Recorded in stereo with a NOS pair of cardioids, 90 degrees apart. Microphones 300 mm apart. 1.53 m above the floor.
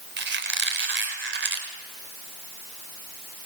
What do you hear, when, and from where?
0.2 s a squeak: 40° right, 4.5 m